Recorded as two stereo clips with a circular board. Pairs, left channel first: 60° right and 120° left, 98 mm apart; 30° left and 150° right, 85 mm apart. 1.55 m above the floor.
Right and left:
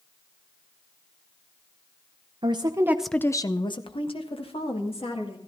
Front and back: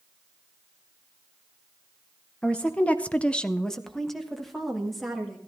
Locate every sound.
2.4 s a woman speaking: 105° left, 0.8 m; by 5.4 s 60° right, 2.5 m